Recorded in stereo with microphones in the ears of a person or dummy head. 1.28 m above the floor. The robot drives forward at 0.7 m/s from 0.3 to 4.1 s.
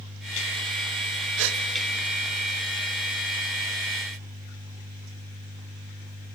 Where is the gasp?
75° right (ahead or behind), 1.4 m; by 1.6 s 80° right, 1.4 m.